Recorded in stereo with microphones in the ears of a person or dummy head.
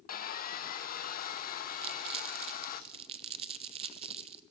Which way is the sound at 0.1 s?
50° left (ahead or behind).